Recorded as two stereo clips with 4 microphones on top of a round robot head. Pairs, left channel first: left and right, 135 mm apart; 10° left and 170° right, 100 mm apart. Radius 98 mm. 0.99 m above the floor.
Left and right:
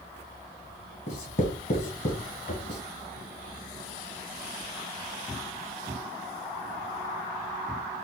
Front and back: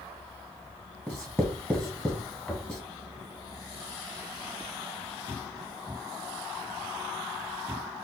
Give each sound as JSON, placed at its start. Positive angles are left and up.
{"t": 1.1, "sound": "writing", "azimuth_deg": 80, "distance_m": 1.0}